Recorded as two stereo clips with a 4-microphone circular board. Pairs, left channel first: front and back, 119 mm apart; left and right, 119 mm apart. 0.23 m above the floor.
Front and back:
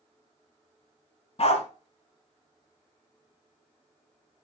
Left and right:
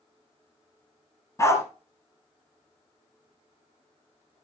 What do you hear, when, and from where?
1.4 s a dog barking: 25° left, 1.3 m